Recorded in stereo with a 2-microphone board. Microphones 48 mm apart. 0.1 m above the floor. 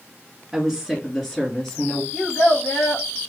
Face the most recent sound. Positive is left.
turn(degrees=65)  # may be behind; listen again after turning